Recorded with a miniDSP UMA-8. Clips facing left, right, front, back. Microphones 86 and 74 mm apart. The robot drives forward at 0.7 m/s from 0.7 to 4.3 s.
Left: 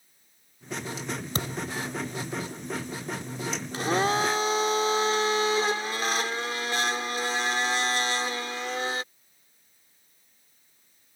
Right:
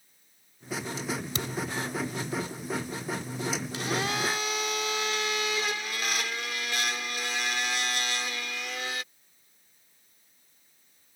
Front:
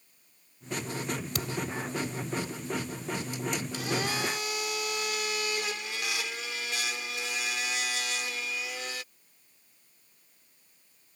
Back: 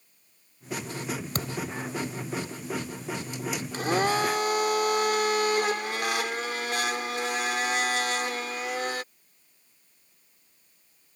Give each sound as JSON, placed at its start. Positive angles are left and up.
{"t": 1.4, "sound": "a thud", "azimuth_deg": 135}
{"t": 3.7, "sound": "a blender", "azimuth_deg": 140}